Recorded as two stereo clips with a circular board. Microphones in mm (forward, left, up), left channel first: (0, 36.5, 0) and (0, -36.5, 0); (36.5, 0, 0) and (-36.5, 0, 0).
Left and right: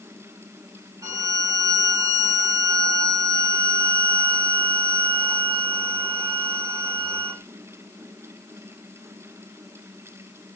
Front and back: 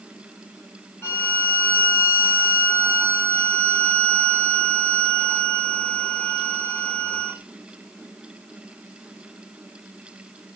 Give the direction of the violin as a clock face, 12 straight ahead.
2 o'clock.